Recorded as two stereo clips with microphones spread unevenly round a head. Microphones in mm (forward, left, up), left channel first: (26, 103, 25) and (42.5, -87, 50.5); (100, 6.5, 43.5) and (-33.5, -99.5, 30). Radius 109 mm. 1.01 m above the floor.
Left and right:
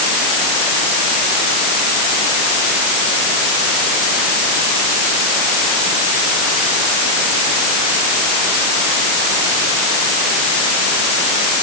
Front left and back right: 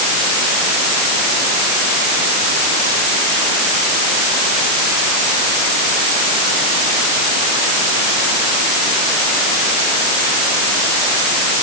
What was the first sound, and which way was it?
Only background noise.